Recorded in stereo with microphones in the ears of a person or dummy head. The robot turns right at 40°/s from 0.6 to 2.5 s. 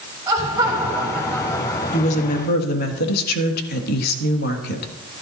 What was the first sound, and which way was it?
Laughter, 20° right.